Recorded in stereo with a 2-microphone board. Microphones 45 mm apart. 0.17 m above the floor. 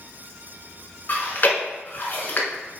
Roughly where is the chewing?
Left.